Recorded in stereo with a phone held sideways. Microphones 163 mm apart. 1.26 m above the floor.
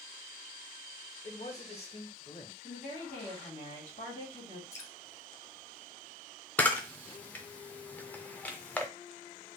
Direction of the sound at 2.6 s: 80° left.